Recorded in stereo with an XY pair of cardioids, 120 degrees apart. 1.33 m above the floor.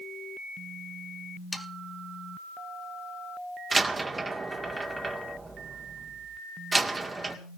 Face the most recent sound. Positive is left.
turn(degrees=-20)